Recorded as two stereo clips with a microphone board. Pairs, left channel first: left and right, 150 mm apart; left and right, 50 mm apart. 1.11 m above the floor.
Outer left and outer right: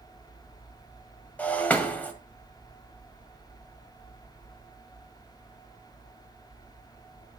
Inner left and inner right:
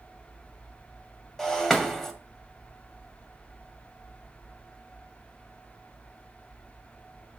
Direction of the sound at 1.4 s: 10° left (ahead or behind).